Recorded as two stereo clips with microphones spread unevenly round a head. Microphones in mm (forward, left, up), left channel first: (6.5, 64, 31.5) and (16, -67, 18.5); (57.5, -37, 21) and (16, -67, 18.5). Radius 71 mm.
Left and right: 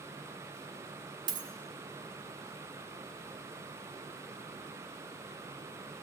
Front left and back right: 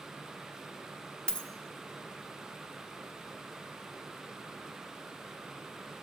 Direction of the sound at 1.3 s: 30° right.